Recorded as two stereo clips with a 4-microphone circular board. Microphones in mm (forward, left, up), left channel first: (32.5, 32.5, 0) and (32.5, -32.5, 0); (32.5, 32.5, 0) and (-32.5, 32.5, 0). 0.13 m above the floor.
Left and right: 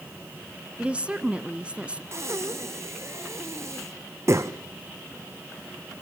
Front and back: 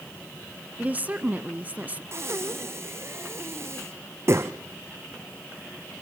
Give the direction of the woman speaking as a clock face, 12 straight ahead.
5 o'clock.